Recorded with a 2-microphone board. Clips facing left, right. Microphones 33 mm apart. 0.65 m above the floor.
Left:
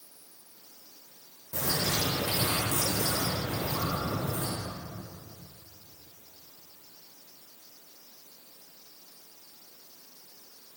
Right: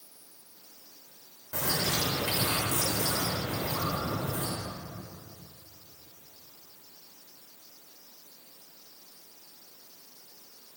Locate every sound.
1.5 s a bird: 70° right (ahead or behind), 2 m